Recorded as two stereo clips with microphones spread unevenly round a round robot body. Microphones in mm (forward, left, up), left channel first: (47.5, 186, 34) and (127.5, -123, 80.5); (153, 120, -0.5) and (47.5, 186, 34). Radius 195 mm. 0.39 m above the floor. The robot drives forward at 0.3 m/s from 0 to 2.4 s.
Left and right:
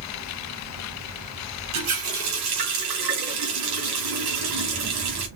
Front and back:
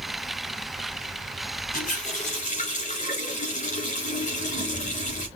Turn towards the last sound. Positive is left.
turn(degrees=-80)